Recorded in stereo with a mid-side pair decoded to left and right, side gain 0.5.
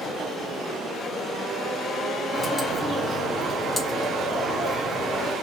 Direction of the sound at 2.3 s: 15° left.